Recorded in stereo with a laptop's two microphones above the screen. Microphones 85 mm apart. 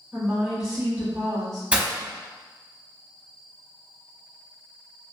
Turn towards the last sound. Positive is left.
turn(degrees=-15)  # may be behind; listen again after turning